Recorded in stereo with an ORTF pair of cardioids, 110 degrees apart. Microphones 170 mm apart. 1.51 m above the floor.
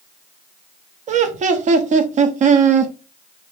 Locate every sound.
1.1 s laughter: 45° right, 0.6 m